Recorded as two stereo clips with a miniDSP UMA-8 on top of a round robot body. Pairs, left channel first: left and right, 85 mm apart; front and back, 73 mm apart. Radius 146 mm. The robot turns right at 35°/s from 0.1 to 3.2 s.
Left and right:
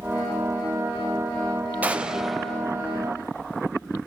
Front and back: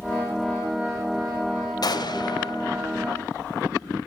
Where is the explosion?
20° right, 1.4 m; by 2.7 s 10° left, 1.4 m.